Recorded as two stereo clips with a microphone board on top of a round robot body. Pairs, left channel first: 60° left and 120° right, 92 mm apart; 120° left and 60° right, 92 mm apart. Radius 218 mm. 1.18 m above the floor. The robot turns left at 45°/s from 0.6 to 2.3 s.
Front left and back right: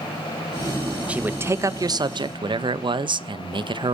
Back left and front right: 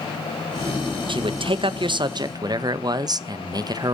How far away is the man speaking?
About 0.8 m.